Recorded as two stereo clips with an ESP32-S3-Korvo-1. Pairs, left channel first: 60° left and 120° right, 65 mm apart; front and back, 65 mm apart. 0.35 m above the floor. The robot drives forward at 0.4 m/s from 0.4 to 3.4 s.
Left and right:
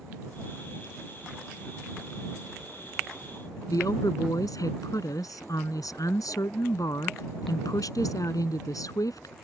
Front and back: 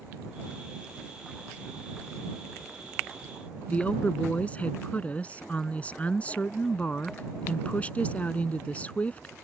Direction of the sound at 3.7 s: 65° left.